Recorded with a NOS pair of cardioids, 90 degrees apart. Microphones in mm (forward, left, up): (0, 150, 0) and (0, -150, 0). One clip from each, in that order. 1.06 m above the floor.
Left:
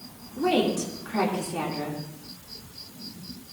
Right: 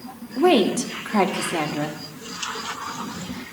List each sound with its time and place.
0.4 s a woman speaking: 55° right, 1.9 m